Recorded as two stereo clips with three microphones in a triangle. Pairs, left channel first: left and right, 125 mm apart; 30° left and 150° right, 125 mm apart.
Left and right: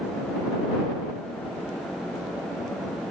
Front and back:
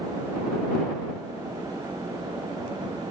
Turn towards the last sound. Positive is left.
No sound to turn to.